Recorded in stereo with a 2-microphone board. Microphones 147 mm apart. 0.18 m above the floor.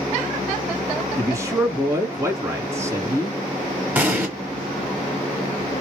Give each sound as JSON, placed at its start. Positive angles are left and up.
{"t": 1.2, "sound": "a man speaking", "side_deg": -20, "distance_m": 1.6}
{"t": 4.0, "sound": "an explosion", "side_deg": -10, "distance_m": 1.4}